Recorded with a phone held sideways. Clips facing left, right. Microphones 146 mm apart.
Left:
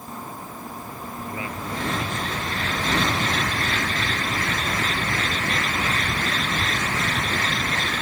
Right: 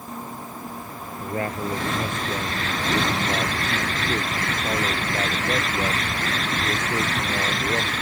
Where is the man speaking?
55° right (ahead or behind).